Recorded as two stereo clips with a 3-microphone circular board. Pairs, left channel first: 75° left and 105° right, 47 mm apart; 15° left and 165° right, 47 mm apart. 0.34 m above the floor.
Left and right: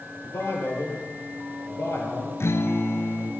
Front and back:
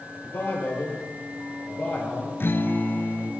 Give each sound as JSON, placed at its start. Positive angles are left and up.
{"t": 0.2, "sound": "a man speaking", "azimuth_deg": 50, "distance_m": 9.5}
{"t": 2.4, "sound": "a guitar", "azimuth_deg": 55, "distance_m": 1.4}